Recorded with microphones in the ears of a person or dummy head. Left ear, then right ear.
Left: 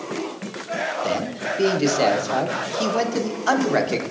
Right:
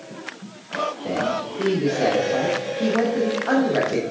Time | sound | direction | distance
1.0 | a man speaking | 80° left | 1.0 m